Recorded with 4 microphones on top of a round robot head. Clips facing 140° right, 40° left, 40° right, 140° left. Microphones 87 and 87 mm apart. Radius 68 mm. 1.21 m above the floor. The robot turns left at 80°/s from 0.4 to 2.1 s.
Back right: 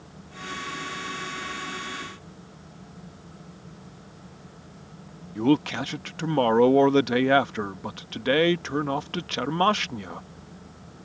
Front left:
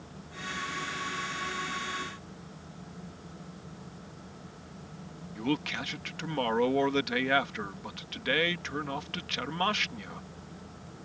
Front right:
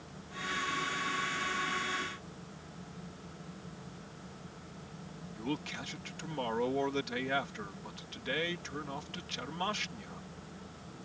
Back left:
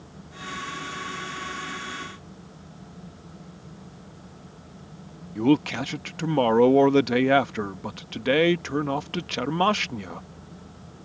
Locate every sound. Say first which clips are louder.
5.3 s a man speaking: back right 10 dB, back left 17 dB; 170° left